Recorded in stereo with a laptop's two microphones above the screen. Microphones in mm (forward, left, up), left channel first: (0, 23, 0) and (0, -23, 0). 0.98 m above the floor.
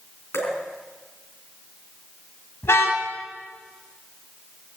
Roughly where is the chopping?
I don't hear chopping.